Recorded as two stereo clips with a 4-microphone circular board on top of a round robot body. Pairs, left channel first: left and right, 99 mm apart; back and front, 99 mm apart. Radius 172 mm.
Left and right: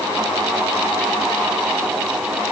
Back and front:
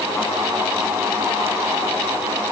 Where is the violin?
I don't hear a violin.